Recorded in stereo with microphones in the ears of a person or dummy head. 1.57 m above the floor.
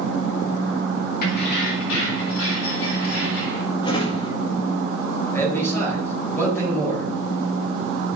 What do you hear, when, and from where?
1.2 s keys jangling: 50° left (ahead or behind), 1.4 m; by 3.6 s 85° left, 3.5 m
3.8 s a drawer: 30° left (ahead or behind), 1.6 m
5.3 s a man speaking: 20° left (ahead or behind), 3.5 m